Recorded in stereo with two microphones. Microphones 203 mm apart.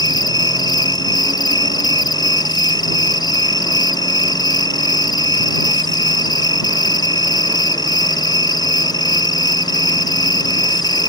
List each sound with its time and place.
0.0 s an insect: 20° left (ahead or behind)